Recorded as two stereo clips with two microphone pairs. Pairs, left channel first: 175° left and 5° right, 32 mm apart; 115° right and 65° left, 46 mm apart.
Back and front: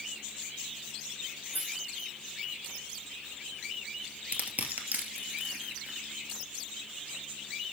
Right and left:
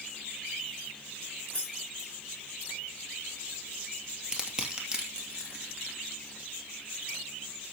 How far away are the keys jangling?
About 7.5 m.